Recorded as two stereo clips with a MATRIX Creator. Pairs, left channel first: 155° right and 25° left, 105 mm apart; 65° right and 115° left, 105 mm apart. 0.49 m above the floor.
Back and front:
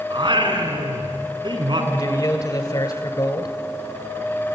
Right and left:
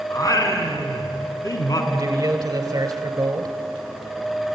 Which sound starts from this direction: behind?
A man speaking, at 1.9 s.